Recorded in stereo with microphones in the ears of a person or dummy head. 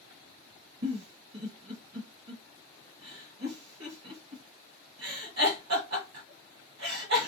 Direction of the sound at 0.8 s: 65° right (ahead or behind).